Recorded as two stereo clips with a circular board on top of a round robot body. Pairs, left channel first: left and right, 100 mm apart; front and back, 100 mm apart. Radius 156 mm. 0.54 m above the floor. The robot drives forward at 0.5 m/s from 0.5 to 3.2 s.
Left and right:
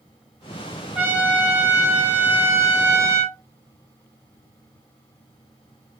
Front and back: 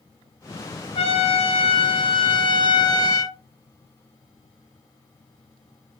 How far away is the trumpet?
About 1.9 m.